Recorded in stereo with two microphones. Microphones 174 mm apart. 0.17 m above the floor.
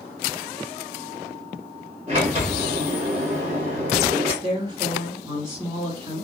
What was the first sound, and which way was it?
A sliding door, 40° right (ahead or behind).